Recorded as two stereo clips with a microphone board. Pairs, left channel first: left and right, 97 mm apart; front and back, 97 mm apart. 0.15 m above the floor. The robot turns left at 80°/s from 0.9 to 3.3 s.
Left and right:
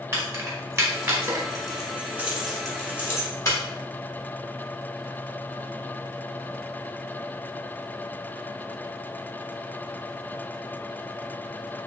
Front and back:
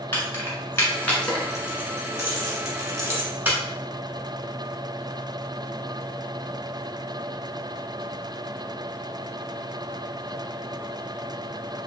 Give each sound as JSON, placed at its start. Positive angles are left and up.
{"t": 0.1, "sound": "keys jangling", "azimuth_deg": -50, "distance_m": 1.1}